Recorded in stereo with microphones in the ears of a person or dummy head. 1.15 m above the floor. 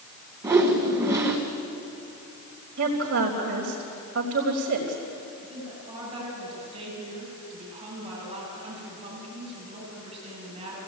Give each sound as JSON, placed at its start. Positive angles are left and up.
{"t": 0.4, "sound": "a whoosh", "side_deg": -20, "distance_m": 1.8}
{"t": 2.8, "sound": "a woman speaking", "side_deg": -70, "distance_m": 4.0}
{"t": 5.4, "sound": "a woman speaking", "side_deg": -30, "distance_m": 8.0}